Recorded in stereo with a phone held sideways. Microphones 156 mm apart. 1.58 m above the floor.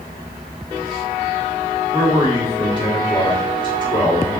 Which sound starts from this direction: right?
A man speaking, at 1.9 s.